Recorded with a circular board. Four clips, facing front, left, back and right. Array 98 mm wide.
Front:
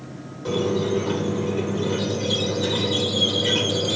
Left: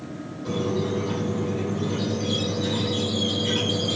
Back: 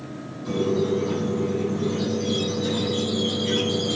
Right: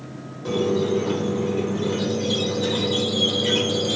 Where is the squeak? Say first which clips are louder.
Right 5 dB, even; 40° right, 2.5 m.